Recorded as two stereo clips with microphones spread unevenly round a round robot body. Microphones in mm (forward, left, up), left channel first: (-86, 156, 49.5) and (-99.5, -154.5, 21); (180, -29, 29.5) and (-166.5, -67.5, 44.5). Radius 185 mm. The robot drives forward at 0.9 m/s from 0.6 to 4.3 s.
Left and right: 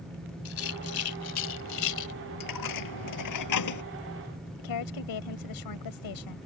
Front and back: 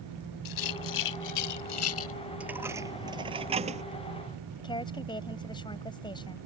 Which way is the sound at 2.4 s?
100° left.